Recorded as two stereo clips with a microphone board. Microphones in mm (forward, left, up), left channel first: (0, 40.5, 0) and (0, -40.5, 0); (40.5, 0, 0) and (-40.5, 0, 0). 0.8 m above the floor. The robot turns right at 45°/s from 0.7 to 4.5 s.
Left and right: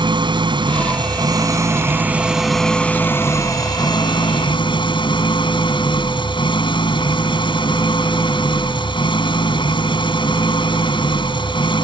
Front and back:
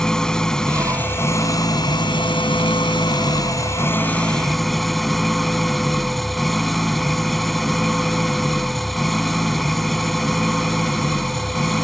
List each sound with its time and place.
0.0 s an engine running: 80° right; by 11.8 s 90° left